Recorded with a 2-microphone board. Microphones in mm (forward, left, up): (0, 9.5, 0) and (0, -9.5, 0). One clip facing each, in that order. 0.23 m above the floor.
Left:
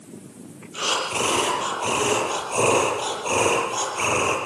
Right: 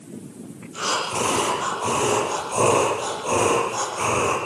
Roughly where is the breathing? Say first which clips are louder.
Even; left.